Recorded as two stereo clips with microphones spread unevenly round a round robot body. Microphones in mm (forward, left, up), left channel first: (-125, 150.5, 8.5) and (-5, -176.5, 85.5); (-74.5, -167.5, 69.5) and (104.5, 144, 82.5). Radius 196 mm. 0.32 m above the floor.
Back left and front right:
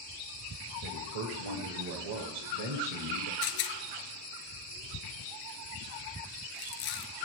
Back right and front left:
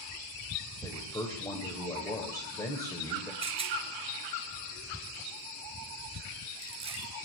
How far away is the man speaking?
About 2 m.